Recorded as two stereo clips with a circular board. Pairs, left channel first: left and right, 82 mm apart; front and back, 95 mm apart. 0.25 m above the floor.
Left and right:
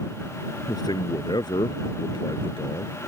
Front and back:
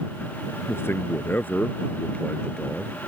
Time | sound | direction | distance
0.7 | a man speaking | 60° left | ?